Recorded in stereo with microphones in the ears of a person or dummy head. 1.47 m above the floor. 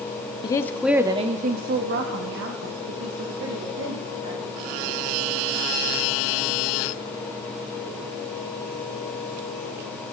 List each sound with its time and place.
0.4 s a woman speaking: 30° left (ahead or behind), 0.9 m; by 4.9 s 85° right, 4 m